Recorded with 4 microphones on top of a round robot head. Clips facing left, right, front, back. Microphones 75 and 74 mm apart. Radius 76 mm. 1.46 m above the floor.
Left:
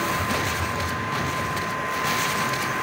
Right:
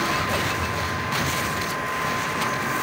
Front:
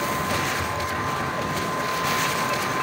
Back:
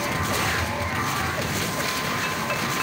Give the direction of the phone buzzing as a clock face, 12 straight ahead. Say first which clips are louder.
Right 1 dB, even; 9 o'clock.